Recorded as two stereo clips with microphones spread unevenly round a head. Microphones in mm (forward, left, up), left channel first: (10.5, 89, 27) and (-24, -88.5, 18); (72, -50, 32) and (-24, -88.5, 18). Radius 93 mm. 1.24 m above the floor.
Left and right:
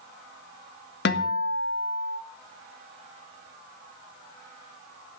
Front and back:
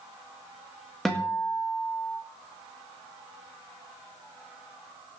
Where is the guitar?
110° left, 1.5 m.